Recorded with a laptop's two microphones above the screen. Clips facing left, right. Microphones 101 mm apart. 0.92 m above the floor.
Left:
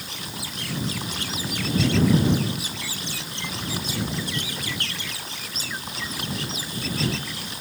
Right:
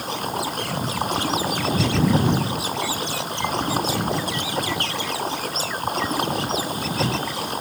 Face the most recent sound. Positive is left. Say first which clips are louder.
# right 11 dB
turn(degrees=-50)  # may be behind; listen again after turning